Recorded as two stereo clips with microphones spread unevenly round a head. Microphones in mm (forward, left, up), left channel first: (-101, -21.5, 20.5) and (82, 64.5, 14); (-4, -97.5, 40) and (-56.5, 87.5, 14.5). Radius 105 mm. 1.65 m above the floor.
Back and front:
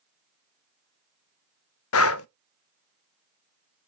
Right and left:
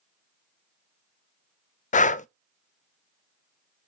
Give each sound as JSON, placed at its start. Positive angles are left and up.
{"t": 1.9, "sound": "breathing", "azimuth_deg": -130, "distance_m": 0.6}